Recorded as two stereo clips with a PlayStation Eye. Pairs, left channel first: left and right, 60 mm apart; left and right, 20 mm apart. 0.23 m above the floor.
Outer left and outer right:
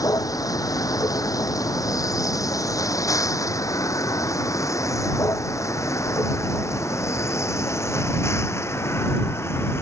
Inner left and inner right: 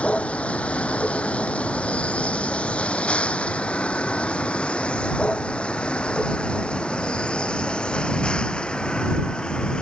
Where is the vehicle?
80° left; by 9.8 s 45° left (ahead or behind).